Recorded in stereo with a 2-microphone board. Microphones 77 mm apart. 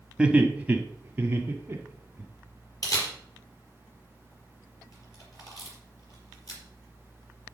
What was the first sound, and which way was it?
Laughter, 15° right (ahead or behind).